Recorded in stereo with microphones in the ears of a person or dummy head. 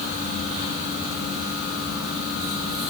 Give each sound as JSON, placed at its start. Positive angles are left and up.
{"t": 0.0, "sound": "a fan", "side_deg": -5, "distance_m": 4.0}